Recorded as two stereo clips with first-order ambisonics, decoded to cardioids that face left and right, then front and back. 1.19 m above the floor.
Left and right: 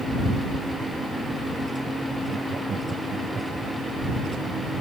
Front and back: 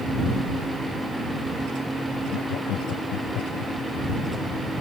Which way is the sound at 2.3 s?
25° right.